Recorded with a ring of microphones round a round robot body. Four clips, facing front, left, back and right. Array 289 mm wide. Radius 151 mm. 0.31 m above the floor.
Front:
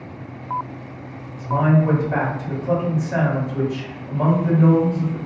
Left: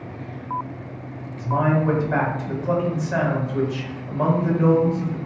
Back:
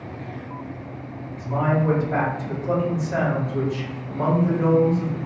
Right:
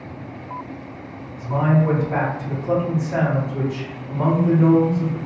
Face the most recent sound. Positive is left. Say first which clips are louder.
# right 1 dB, front 4 dB
turn(degrees=85)